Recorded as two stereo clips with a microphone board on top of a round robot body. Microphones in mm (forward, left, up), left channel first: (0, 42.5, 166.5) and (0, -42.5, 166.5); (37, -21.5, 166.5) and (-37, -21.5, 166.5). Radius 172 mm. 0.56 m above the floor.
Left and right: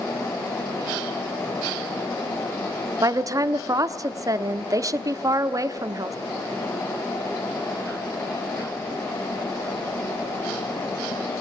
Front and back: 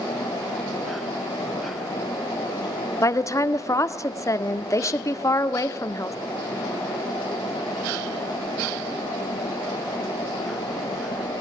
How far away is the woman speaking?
About 1.4 m.